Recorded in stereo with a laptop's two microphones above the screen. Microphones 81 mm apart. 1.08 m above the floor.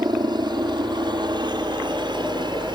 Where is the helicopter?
65° right (ahead or behind); by 2.8 s 70° right (ahead or behind).